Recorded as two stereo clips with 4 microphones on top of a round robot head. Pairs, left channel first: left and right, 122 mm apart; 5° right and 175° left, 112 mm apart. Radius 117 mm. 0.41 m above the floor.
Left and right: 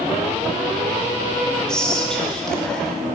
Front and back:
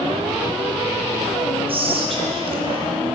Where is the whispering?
175° left, 1.5 m.